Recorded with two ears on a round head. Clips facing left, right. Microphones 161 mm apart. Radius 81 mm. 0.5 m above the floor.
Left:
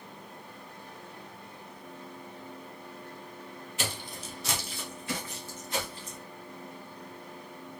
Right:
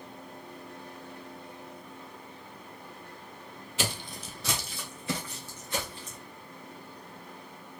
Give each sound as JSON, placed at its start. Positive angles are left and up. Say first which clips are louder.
{"t": 3.8, "sound": "footsteps", "louder": "right 3 dB", "side_deg": -60, "distance_m": 0.9}